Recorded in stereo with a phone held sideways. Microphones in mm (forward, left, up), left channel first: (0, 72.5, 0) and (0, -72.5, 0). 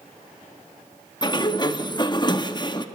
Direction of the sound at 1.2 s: 30° left (ahead or behind).